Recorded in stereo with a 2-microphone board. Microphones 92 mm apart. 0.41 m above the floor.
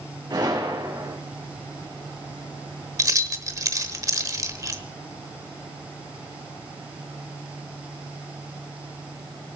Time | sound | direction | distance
0.3 | a gunshot | 45° right (ahead or behind) | 5 m
3.0 | keys jangling | 35° right (ahead or behind) | 1.1 m